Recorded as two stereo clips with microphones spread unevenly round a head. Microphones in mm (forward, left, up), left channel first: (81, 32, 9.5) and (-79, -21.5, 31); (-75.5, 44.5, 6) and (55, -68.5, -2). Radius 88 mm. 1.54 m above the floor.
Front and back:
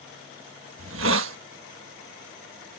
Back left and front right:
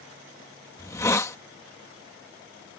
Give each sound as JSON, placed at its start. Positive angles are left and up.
{"t": 0.8, "sound": "a hiss", "azimuth_deg": -150}